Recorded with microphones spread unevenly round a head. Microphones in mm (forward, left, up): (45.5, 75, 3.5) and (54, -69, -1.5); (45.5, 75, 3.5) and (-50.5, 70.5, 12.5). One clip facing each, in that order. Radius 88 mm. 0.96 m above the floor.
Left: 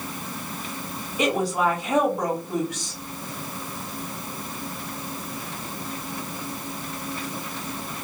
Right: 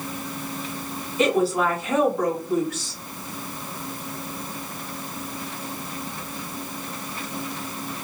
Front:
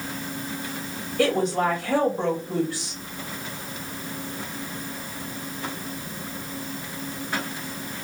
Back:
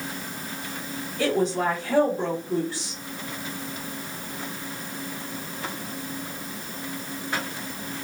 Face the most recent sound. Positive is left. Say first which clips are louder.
# right 2 dB, front 2 dB
turn(degrees=20)